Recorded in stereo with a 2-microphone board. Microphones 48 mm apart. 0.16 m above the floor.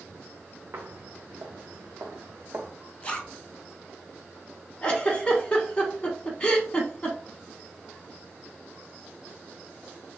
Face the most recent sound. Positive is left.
turn(degrees=25)  # may be behind; listen again after turning